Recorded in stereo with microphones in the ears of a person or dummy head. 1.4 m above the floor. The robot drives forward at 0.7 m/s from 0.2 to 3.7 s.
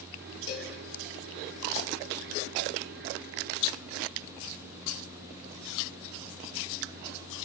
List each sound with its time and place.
0.5 s a cowbell: 55° left (ahead or behind), 5 m; by 0.7 s 60° left (ahead or behind), 5 m